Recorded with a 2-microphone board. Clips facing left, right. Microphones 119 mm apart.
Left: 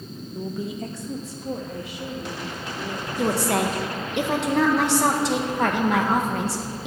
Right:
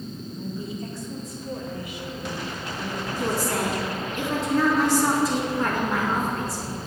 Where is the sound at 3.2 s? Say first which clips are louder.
Left 4 dB; 75° left (ahead or behind), 1.2 m.